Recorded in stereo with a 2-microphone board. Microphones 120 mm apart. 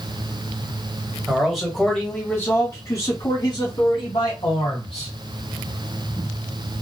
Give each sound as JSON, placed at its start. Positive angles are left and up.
{"t": 1.3, "sound": "a man speaking", "side_deg": -5, "distance_m": 1.5}